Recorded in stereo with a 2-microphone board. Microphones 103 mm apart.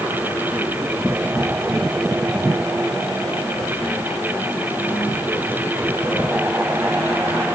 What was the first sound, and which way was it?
Only background noise.